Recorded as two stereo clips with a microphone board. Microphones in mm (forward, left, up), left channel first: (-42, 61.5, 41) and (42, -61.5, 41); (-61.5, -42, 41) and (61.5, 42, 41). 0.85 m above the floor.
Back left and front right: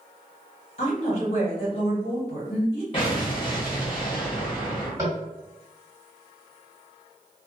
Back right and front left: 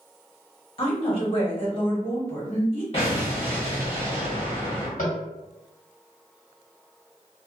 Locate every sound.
0.8 s a woman speaking: 165° left, 1.2 m
2.9 s an explosion: 170° left, 1.3 m
5.0 s tapping: 125° right, 1.6 m